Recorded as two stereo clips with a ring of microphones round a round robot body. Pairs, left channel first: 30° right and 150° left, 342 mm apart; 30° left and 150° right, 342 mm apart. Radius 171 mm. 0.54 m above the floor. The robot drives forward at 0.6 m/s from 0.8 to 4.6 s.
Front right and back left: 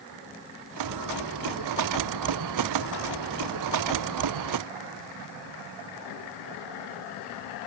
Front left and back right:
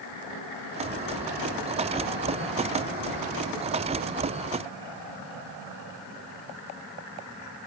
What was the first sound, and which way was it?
Only background noise.